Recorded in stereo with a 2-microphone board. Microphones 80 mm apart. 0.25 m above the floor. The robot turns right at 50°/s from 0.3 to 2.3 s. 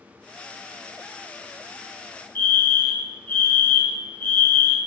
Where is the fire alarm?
25° left (ahead or behind), 3.5 m.